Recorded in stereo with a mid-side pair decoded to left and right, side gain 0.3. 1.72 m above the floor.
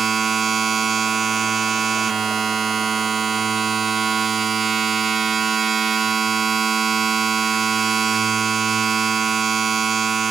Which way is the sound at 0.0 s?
60° right.